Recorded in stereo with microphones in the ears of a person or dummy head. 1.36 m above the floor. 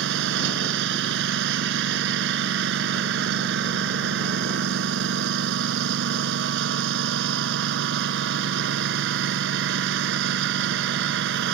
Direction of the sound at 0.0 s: 70° right (ahead or behind).